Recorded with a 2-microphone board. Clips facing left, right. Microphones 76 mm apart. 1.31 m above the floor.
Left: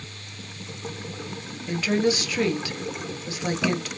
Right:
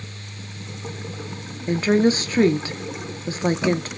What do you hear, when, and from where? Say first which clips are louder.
1.7 s a woman speaking: right 5 dB; 40° right (ahead or behind), 0.5 m